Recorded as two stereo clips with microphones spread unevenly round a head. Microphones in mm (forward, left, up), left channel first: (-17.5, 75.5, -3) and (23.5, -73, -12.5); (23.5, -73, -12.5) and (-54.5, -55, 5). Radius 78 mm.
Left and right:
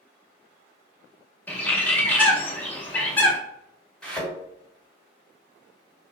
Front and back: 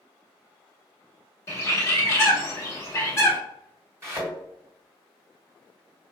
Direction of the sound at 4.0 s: 175° right.